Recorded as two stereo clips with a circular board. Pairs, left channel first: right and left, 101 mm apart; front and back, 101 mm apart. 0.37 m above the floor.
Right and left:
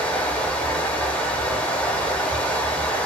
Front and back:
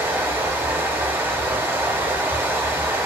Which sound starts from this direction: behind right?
Running water, at 0.0 s.